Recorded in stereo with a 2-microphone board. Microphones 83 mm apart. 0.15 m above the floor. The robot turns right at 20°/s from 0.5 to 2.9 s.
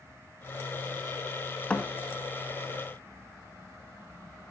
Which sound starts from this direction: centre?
A thud, at 1.7 s.